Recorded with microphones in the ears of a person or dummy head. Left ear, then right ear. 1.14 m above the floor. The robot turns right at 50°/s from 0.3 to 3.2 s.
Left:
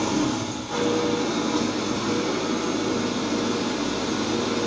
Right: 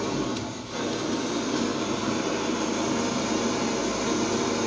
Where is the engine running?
105° left, 0.9 m; by 4.7 s 110° right, 0.9 m.